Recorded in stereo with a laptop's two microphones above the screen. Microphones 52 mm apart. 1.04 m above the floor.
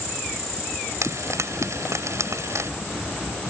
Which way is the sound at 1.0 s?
65° right (ahead or behind).